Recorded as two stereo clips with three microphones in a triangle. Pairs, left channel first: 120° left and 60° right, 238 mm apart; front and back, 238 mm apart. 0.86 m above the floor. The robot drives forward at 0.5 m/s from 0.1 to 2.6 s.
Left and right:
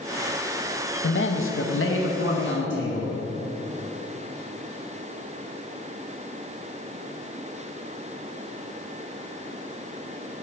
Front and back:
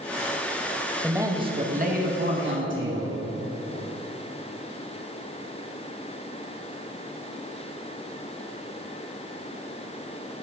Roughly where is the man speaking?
Left.